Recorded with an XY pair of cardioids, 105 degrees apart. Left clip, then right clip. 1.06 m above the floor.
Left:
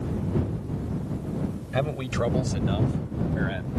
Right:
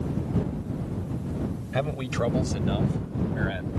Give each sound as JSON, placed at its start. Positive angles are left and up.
{"t": 1.7, "sound": "a man speaking", "azimuth_deg": 5}